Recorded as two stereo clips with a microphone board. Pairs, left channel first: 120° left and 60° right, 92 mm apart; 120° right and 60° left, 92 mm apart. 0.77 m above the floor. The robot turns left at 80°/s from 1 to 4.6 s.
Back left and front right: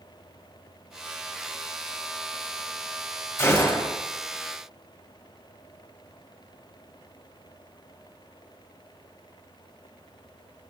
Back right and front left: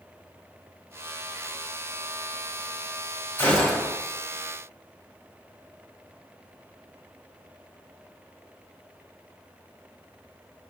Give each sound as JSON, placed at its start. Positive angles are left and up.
{"t": 3.4, "sound": "a gunshot", "azimuth_deg": 175, "distance_m": 3.5}